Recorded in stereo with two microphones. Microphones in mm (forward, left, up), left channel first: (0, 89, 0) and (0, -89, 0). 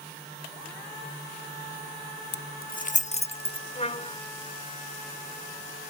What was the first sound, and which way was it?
Keys jangling, 70° left (ahead or behind).